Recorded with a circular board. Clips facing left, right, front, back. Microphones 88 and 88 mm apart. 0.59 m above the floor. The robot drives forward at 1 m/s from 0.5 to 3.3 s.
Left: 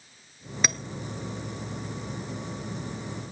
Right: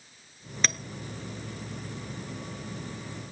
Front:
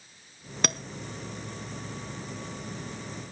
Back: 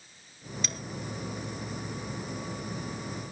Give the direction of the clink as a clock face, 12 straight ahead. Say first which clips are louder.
Left 1 dB, front 11 dB; 12 o'clock.